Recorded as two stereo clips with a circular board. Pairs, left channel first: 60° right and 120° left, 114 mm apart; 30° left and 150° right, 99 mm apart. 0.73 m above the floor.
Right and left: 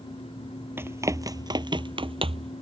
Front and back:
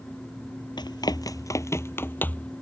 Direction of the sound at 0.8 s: 55° left.